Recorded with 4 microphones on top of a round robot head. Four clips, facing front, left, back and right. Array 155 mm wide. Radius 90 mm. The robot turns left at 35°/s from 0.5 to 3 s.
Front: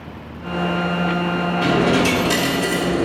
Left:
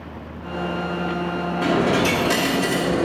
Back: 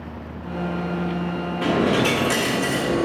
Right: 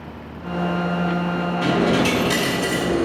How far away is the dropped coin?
About 0.9 m.